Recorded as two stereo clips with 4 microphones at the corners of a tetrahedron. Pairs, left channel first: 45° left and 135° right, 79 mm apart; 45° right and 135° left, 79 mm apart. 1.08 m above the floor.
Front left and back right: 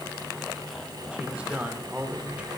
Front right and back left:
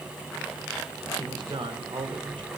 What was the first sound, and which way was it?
A man speaking, 150° left.